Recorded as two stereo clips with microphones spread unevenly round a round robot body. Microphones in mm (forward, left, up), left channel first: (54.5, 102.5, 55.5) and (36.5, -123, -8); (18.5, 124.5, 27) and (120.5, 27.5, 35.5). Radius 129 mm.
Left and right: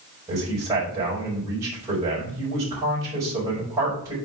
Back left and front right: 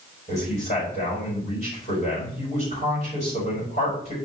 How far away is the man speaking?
About 4 m.